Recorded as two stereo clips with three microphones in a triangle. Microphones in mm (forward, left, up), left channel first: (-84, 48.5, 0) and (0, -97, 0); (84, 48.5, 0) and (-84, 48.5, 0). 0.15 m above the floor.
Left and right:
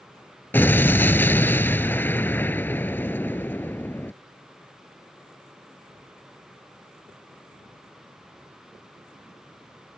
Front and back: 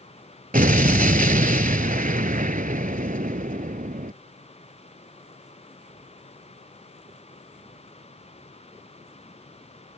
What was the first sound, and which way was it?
An explosion, 165° right.